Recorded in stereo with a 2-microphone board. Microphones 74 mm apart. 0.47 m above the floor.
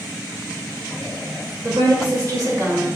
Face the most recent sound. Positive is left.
turn(degrees=-40)  # may be behind; listen again after turning